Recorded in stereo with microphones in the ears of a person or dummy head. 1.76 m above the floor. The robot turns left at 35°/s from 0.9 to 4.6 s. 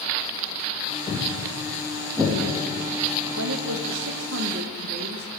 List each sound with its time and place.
1.1 s footsteps: 20° left (ahead or behind), 4.5 m; by 3.3 s 55° right (ahead or behind), 6 m
3.4 s a woman speaking: 90° right, 1.1 m; by 5.3 s 135° right, 1.1 m